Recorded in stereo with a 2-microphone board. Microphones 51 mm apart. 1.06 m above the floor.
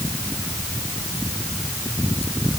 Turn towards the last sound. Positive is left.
No sound to turn to.